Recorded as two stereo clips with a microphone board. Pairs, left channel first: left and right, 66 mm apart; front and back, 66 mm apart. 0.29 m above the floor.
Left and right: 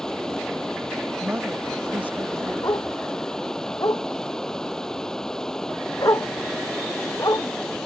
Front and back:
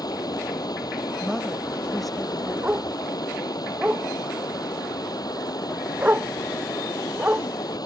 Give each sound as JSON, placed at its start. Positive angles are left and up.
{"t": 0.0, "sound": "running water", "azimuth_deg": 10}
{"t": 1.2, "sound": "a woman speaking", "azimuth_deg": -85}
{"t": 2.6, "sound": "a dog barking", "azimuth_deg": 115}